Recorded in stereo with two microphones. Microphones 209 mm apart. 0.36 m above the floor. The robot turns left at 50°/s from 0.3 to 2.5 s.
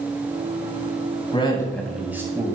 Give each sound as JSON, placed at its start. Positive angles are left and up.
{"t": 1.3, "sound": "a man speaking", "azimuth_deg": 30, "distance_m": 2.5}